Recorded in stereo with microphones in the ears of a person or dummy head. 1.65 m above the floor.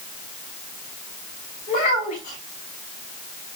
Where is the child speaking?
50° left (ahead or behind), 4.5 m.